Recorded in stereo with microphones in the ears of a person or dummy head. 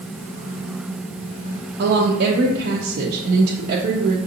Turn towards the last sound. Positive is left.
turn(degrees=-55)  # may be behind; listen again after turning